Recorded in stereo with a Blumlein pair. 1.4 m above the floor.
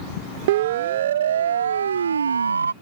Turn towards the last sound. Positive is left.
turn(degrees=-75)